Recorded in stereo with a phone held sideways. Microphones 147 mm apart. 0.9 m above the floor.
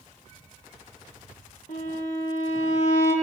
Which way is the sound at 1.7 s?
60° left (ahead or behind).